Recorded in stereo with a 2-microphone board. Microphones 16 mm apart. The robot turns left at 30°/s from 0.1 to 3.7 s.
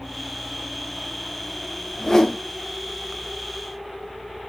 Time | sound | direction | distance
1.9 | a whoosh | 25° left (ahead or behind) | 2.0 m